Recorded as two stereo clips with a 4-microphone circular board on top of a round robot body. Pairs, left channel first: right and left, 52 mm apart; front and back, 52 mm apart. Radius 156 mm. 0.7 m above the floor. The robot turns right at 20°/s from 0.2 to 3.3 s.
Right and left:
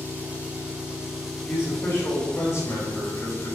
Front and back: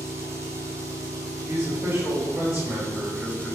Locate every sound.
0.0 s an engine running: 150° left, 3 m; by 3.6 s 145° right, 3 m
1.5 s a man speaking: 150° right, 4.5 m; by 3.6 s 115° right, 4.5 m